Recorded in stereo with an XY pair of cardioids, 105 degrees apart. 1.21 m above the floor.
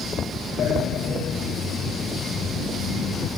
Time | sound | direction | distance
0.6 | a sliding door | 65° left | ?